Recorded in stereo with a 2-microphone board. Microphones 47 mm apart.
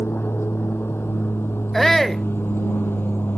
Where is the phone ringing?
I don't hear a phone ringing.